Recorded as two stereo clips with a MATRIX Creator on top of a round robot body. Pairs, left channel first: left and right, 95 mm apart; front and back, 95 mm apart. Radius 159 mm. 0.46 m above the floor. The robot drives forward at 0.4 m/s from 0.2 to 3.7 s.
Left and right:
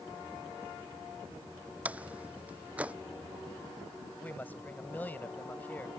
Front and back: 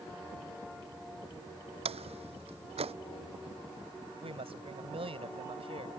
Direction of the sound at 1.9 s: 165° right.